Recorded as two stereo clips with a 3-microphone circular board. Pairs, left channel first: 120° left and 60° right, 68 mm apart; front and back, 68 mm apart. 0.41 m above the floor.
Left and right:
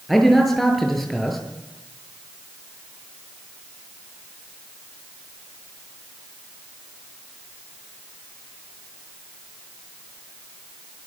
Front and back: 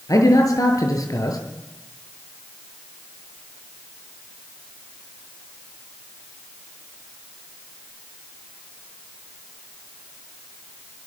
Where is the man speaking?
30° left, 8 m.